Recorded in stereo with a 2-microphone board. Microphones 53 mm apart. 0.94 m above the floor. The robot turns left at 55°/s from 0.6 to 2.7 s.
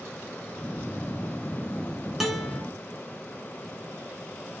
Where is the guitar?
5° right (ahead or behind), 2.5 m; by 2.6 s 15° left (ahead or behind), 2.5 m.